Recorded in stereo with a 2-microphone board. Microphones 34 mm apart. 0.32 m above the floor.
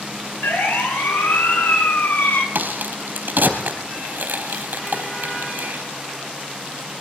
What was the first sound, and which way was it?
A siren, 65° left (ahead or behind).